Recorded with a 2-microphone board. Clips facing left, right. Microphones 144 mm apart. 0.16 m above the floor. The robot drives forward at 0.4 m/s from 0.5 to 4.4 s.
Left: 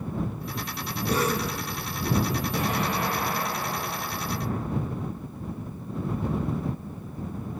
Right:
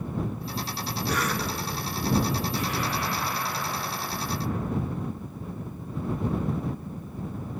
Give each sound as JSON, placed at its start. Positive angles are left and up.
{"t": 1.1, "sound": "a cough", "side_deg": 30, "distance_m": 2.5}
{"t": 2.5, "sound": "an explosion", "side_deg": 75, "distance_m": 6.0}